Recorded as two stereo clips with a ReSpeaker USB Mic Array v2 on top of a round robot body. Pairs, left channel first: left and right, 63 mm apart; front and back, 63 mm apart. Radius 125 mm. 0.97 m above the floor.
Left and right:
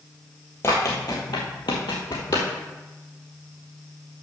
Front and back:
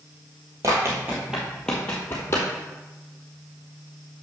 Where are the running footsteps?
140° left, 1.2 m; by 2.5 s 55° left, 1.5 m.